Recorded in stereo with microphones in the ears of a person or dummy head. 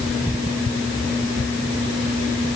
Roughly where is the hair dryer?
No hair dryer in this recording.